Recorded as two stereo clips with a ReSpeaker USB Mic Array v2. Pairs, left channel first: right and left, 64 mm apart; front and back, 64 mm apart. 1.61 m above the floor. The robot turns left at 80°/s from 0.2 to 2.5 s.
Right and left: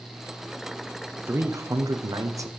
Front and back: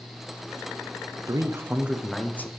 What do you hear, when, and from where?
1.3 s a man speaking: 155° left, 0.7 m; by 2.5 s 55° left, 0.7 m